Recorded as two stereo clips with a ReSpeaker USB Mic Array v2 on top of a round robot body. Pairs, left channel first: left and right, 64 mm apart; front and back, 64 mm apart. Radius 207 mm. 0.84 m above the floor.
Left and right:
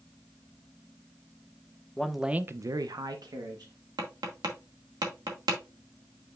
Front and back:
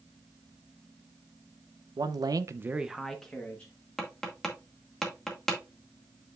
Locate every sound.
2.0 s a man speaking: 170° left, 0.9 m; by 3.7 s 70° right, 1.6 m
4.0 s tapping: 85° right, 2 m